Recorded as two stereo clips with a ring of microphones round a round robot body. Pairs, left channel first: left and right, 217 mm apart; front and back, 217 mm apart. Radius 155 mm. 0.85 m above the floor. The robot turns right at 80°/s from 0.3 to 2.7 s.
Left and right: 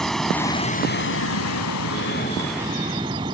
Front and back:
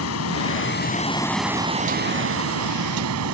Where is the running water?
Straight ahead; by 3.4 s 165° right.